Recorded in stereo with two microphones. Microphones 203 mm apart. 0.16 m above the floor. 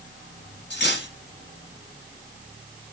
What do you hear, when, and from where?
0.7 s cutlery clinking: 65° left (ahead or behind), 1.6 m